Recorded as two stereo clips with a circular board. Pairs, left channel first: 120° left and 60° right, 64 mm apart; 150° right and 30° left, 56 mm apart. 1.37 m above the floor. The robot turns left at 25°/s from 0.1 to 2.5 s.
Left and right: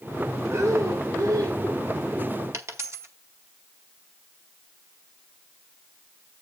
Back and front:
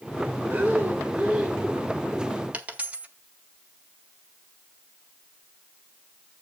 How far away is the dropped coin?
About 1.8 m.